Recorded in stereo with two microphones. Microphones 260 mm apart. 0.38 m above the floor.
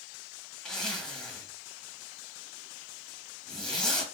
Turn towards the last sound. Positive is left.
turn(degrees=0)  # may be behind; listen again after turning